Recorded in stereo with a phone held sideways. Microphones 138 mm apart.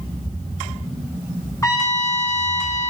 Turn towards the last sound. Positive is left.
turn(degrees=25)  # may be behind; listen again after turning